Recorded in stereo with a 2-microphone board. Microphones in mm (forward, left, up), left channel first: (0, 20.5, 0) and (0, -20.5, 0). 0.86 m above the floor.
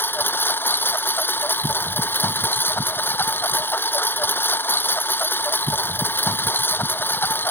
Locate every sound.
0.0 s a lawn mower: 55° left (ahead or behind)